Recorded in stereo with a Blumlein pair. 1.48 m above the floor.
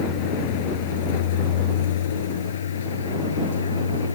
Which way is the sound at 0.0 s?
50° left.